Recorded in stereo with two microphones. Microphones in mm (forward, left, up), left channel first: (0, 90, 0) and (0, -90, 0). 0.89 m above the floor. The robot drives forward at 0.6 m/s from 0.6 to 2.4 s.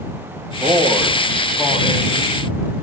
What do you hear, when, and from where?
0.6 s a man speaking: 5° left (ahead or behind), 4 m